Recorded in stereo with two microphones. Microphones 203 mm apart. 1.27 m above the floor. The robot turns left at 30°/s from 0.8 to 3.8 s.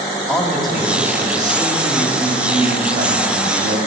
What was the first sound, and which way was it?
A man speaking, straight ahead.